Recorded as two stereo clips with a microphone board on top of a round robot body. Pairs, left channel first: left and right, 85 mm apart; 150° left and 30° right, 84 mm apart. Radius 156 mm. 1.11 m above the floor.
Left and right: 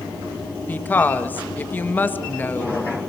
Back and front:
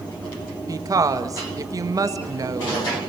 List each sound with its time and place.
0.7 s a woman speaking: 20° left, 1.7 m